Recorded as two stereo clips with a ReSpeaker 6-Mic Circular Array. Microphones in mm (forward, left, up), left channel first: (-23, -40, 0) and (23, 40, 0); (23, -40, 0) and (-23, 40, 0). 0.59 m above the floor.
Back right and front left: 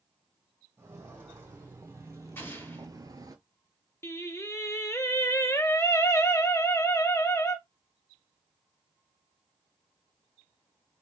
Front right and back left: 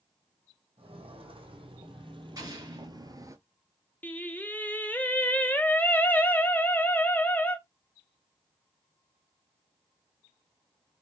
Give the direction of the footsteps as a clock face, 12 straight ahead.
8 o'clock.